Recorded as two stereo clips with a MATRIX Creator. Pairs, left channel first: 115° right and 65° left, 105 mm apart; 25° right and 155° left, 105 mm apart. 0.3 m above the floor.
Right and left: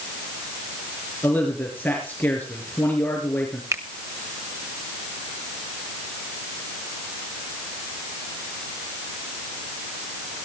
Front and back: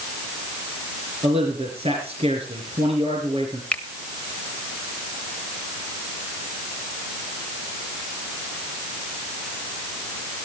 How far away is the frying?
I don't hear frying.